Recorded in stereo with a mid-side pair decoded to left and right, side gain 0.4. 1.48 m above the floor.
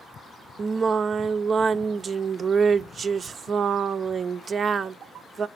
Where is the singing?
45° right, 0.5 m.